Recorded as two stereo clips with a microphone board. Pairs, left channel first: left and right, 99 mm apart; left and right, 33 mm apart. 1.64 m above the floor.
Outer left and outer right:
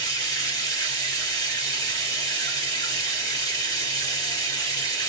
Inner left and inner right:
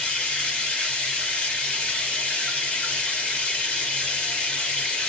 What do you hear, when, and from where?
0.0 s running water: 35° left (ahead or behind), 1.4 m